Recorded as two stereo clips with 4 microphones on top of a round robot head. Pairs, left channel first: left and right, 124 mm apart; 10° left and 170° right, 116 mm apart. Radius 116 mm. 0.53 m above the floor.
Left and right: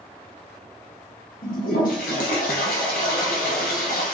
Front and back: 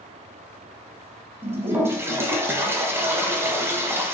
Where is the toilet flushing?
120° left, 0.9 m.